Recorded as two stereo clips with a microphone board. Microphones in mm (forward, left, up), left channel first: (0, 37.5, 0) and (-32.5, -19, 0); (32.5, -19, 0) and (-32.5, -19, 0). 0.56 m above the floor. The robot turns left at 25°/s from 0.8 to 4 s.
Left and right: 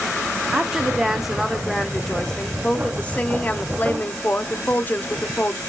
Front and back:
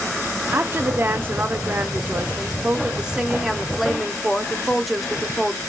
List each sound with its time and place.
0.5 s a woman speaking: 170° left, 0.7 m; by 5.6 s 90° left, 0.7 m